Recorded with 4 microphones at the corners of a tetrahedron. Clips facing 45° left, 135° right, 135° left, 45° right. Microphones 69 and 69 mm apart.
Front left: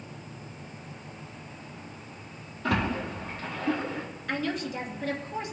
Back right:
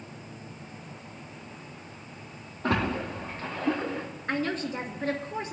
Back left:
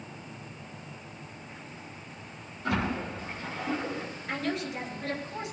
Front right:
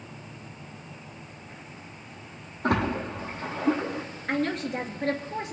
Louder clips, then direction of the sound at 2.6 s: Back right 1 dB, front right 4 dB; 85° right.